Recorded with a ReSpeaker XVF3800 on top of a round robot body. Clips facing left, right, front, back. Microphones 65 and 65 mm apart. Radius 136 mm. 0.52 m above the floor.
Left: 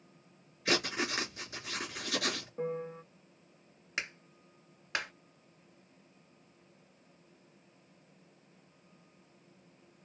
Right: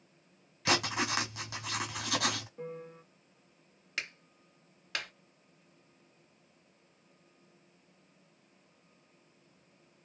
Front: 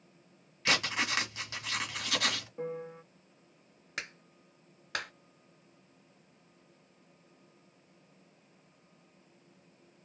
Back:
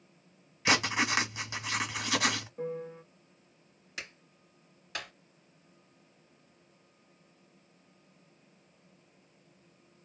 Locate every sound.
0.7 s writing: 100° right, 1.4 m
2.6 s a piano: 60° left, 0.9 m
4.0 s a clap: 20° left, 2.5 m